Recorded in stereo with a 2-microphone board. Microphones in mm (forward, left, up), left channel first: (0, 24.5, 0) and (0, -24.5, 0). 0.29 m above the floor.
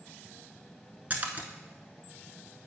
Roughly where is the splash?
Right.